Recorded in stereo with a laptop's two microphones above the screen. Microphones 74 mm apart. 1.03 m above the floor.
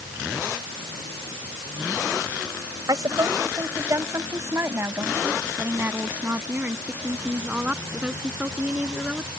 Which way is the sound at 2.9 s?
55° right (ahead or behind).